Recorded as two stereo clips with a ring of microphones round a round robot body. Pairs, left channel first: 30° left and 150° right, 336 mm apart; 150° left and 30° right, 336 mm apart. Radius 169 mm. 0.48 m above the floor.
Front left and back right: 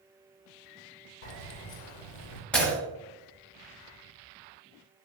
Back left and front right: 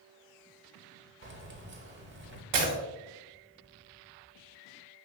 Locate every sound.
1.2 s keys jangling: 25° left, 1.1 m
2.5 s breaking glass: 55° right, 3 m